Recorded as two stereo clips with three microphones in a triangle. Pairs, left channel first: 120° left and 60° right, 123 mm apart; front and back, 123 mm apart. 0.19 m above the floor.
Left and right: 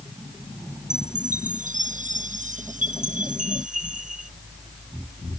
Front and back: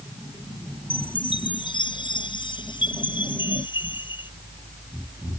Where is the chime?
50° right.